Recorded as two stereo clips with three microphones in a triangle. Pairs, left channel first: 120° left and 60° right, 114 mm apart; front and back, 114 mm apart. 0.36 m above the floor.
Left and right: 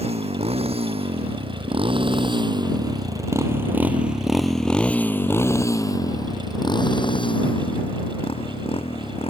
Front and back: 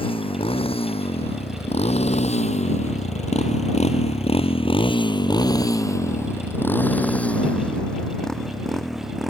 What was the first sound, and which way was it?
A motorcycle, 35° right.